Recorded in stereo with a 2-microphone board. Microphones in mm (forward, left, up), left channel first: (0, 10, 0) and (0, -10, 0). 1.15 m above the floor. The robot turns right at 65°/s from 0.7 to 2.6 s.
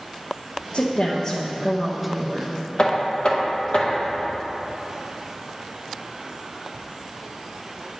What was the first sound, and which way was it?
A woman speaking, 105° left.